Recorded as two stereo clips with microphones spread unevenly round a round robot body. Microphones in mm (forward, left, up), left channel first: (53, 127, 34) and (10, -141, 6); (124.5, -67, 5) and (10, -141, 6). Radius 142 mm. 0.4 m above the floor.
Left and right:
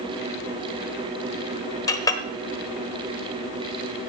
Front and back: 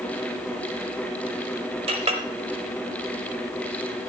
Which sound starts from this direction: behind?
A clink, at 1.9 s.